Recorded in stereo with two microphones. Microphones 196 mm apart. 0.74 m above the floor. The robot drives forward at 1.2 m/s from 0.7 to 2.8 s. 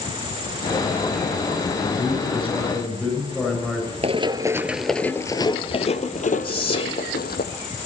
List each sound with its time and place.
1.8 s a man speaking: 5° left (ahead or behind), 9.5 m
4.0 s running footsteps: 30° right (ahead or behind), 0.9 m; by 7.4 s 55° left (ahead or behind), 1.9 m
6.4 s whispering: 30° left (ahead or behind), 3 m